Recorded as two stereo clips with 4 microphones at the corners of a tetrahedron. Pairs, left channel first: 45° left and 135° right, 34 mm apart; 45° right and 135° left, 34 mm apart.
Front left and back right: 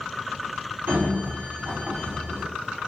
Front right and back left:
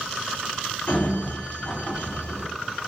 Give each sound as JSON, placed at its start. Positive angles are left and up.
{"t": 0.9, "sound": "a sliding door", "azimuth_deg": -115, "distance_m": 5.5}